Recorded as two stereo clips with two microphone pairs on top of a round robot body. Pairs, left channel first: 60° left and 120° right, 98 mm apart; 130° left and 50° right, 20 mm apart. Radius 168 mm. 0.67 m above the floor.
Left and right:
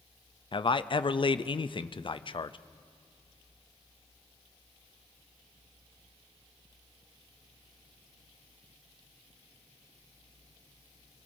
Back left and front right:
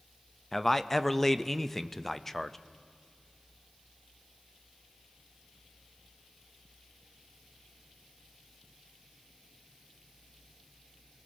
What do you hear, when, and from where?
0.5 s a man speaking: 65° left, 0.6 m